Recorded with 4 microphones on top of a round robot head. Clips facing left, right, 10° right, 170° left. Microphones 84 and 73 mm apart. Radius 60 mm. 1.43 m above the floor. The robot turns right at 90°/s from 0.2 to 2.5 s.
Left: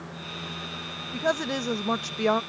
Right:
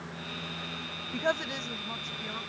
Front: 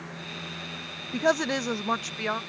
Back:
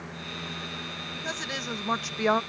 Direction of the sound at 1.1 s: Straight ahead.